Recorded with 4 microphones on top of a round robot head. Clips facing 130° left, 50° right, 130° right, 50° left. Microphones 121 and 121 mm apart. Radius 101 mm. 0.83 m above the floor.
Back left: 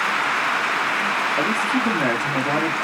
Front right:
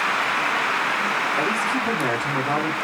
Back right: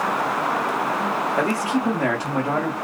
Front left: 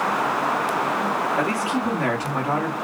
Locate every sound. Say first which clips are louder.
1.4 s a man speaking: back left 2 dB, back right 1 dB; 170° left, 1.9 m